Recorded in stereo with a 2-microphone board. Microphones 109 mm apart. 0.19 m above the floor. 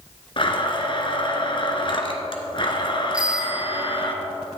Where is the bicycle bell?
10° right (ahead or behind), 2.5 m.